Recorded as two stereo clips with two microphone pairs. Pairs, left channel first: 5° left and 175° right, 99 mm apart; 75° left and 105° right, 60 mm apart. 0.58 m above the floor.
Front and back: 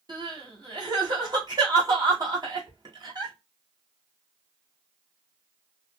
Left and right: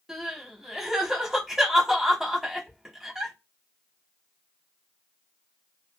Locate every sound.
0.1 s crying: 175° left, 1.5 m